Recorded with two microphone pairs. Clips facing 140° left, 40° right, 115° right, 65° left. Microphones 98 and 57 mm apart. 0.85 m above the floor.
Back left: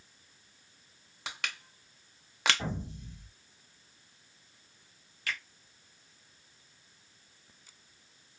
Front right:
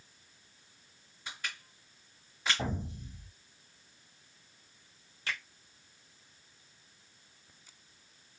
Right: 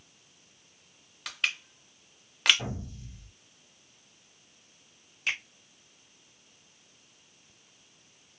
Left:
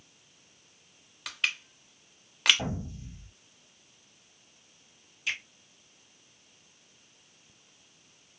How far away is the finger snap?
About 1.2 m.